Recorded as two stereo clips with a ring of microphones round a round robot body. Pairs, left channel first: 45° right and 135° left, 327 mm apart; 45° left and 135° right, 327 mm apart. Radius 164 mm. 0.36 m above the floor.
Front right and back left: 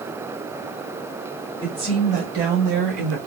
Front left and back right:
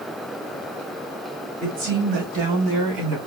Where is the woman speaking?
150° right, 2 m; by 3.2 s 175° right, 3 m.